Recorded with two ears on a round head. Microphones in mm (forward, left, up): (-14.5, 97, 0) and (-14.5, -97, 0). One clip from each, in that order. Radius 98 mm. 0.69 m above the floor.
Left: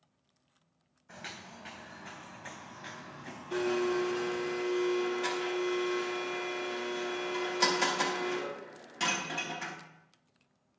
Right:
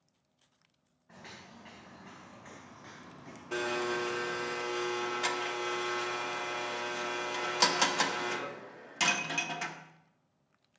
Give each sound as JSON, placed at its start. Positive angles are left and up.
{"t": 1.1, "sound": "footsteps", "side_deg": 75, "distance_m": 2.5}
{"t": 3.5, "sound": "a blender", "side_deg": -35, "distance_m": 1.0}